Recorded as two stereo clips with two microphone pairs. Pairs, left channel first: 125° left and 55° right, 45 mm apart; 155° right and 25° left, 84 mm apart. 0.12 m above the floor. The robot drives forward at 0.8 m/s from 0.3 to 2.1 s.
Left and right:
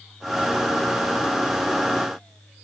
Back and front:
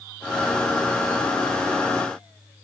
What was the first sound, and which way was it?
Only background noise.